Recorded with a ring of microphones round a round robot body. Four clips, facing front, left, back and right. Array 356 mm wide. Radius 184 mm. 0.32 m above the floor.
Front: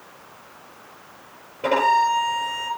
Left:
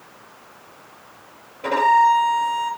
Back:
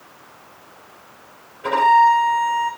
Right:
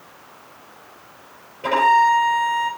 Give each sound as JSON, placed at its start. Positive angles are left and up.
{"t": 1.6, "sound": "a violin", "azimuth_deg": -5, "distance_m": 6.5}